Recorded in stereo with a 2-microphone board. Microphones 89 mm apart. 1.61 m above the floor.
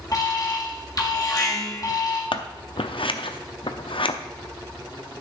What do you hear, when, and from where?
0.1 s an alarm: 45° left (ahead or behind), 1.8 m
2.3 s scissors: 75° left (ahead or behind), 0.6 m